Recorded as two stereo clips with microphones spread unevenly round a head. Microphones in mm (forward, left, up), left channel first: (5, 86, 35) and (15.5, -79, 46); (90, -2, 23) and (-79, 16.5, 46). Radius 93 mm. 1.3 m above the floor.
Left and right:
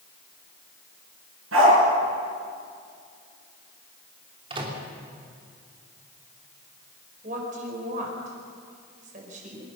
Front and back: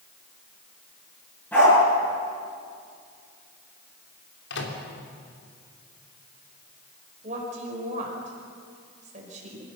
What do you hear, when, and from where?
1.5 s a dog barking: 90° right, 7.5 m
4.5 s a microwave: 25° right, 3 m
7.2 s a woman speaking: 135° right, 5 m